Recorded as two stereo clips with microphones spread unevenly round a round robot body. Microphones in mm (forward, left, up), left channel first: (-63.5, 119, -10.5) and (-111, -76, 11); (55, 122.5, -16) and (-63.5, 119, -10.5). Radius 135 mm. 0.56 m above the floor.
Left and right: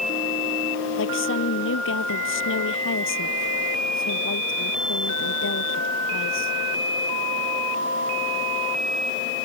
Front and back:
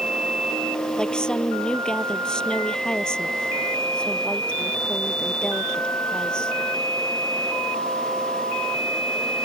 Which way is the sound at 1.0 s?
85° left.